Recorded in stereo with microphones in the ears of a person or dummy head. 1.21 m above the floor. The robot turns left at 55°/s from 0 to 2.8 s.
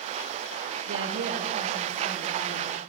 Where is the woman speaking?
105° right, 1.6 m; by 2.8 s 150° left, 1.6 m.